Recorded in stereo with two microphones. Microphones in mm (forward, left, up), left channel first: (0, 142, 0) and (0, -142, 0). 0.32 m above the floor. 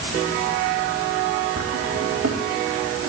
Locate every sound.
1.6 s a drawer: 85° right, 4.5 m